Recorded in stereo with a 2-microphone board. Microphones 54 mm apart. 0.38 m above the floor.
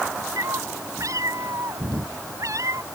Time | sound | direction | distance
0.4 | a cat meowing | 75° right (ahead or behind) | ?